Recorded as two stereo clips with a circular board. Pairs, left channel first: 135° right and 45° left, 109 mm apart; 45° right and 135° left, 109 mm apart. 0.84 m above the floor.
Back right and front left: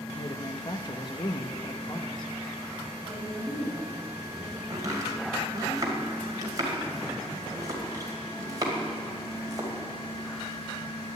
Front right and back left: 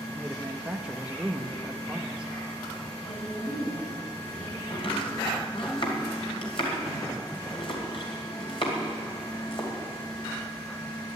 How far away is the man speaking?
About 0.9 m.